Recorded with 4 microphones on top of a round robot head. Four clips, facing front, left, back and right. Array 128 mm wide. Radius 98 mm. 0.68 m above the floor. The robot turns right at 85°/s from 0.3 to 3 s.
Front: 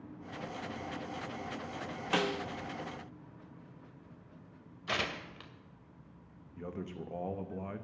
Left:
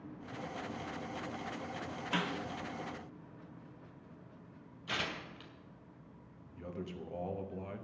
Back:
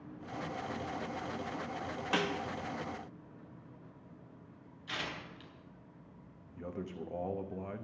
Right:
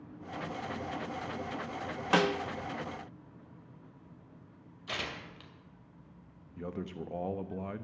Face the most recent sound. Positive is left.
turn(degrees=-90)